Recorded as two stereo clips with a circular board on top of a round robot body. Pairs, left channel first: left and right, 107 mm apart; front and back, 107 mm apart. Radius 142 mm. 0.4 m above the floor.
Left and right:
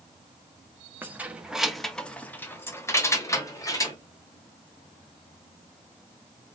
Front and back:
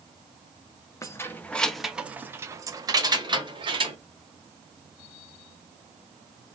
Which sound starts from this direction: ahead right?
Keys jangling, at 1.0 s.